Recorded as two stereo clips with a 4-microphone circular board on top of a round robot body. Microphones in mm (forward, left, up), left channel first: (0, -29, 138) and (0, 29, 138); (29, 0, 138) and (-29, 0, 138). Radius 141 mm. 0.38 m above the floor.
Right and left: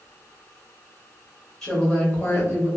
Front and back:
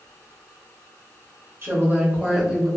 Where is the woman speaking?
170° right, 1.2 m; by 2.7 s 80° right, 1.1 m.